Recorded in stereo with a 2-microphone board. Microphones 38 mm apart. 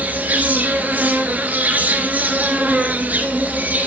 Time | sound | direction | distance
0.0 | an insect | 40° right (ahead or behind) | 2.0 m